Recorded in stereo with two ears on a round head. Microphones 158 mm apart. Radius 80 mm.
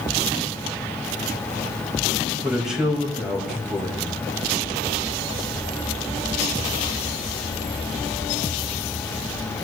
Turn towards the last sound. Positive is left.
turn(degrees=-5)  # may be behind; listen again after turning